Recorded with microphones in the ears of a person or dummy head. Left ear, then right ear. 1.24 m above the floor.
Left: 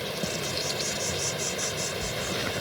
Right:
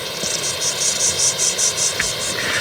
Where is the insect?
50° right (ahead or behind).